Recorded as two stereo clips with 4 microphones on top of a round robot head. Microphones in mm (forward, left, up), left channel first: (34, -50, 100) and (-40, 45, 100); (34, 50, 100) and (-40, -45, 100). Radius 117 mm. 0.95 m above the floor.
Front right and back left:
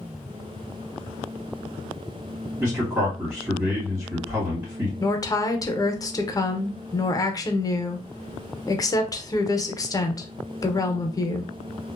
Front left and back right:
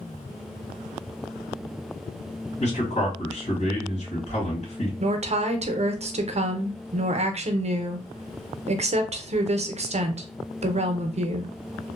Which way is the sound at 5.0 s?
110° right.